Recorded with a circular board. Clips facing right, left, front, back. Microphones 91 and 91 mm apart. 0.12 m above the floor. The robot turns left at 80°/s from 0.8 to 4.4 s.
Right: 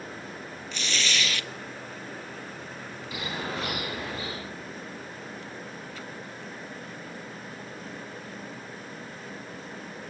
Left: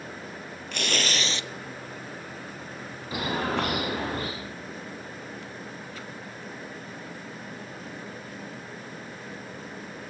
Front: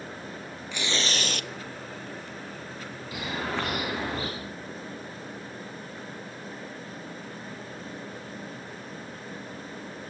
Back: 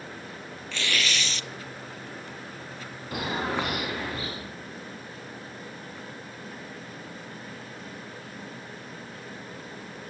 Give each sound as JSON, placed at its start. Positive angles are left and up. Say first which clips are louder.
{"t": 0.7, "sound": "tearing paper", "louder": "left 3 dB, even", "azimuth_deg": 70, "distance_m": 0.5}
{"t": 3.1, "sound": "a bird", "louder": "left 6 dB, back 3 dB", "azimuth_deg": 145, "distance_m": 7.0}